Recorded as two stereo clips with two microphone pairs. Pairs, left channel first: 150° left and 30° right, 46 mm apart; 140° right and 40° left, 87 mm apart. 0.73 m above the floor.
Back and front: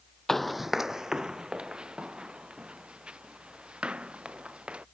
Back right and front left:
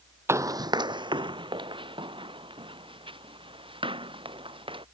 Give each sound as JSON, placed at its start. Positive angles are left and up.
{"t": 0.3, "sound": "running footsteps", "azimuth_deg": 75}